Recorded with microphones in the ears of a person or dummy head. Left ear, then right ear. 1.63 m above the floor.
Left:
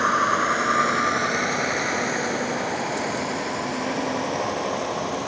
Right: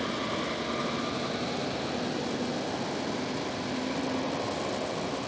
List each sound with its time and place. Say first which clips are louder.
0.0 s a vehicle: left 12 dB; 50° left (ahead or behind); by 5.3 s 75° left (ahead or behind)